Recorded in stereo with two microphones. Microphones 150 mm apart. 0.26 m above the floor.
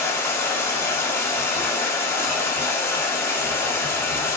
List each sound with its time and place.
0.0 s running water: 15° left (ahead or behind), 0.8 m